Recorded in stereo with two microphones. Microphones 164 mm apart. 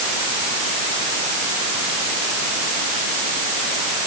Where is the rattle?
No rattle in this recording.